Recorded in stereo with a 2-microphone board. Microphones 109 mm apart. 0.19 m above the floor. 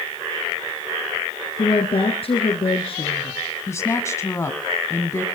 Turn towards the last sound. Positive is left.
turn(degrees=25)  # may be behind; listen again after turning